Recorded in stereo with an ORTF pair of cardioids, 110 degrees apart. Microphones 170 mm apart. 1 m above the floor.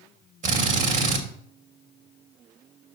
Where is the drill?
45° right, 3 m.